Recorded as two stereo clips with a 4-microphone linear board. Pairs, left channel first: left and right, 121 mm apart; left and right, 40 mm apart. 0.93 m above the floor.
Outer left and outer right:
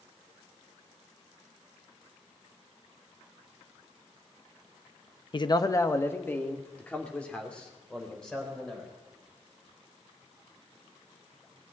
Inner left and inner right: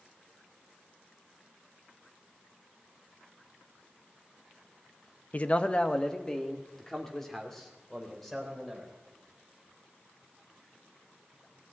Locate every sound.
5.3 s a man speaking: 40° left (ahead or behind), 0.6 m; by 8.9 s 5° left (ahead or behind), 4 m